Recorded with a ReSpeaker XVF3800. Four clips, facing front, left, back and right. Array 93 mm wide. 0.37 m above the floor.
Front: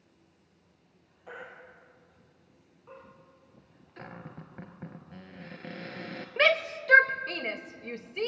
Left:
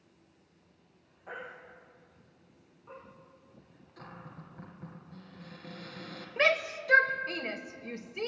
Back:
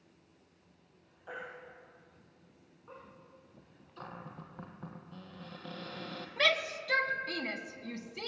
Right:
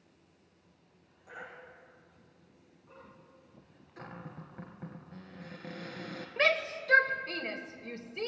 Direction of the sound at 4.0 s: 20° right.